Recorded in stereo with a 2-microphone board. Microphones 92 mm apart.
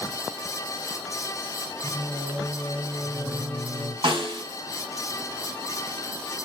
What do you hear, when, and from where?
1.8 s singing: 70° right (ahead or behind), 3 m
4.0 s a snare drum: 65° right (ahead or behind), 3.5 m